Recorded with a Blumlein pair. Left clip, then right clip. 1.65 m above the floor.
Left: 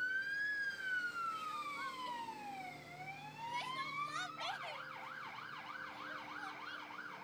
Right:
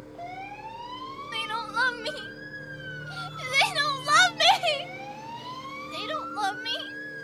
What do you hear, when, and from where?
0.0 s a machine running: 55° right
1.3 s crying: 40° right